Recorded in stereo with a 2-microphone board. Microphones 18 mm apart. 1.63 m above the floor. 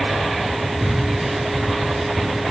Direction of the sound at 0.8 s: 10° right (ahead or behind).